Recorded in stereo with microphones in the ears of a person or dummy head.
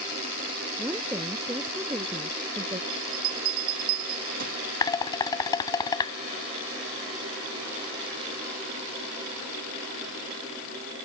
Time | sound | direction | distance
0.8 | a woman speaking | 10° right (ahead or behind) | ?
2.9 | a bell | 50° right (ahead or behind) | ?
4.8 | dishes clattering | 20° left (ahead or behind) | ?